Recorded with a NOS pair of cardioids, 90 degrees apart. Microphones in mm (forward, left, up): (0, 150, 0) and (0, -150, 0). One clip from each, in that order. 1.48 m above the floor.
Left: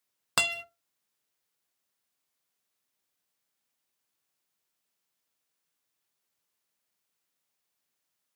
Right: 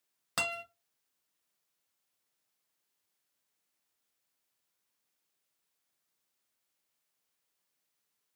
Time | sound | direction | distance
0.4 | a guitar | 45° left | 0.9 m